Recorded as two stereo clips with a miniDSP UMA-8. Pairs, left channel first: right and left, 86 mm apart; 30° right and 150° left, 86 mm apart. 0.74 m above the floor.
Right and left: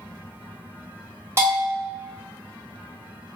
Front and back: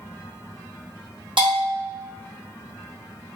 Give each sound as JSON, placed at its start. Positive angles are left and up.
{"t": 1.4, "sound": "a bell", "azimuth_deg": 150, "distance_m": 1.1}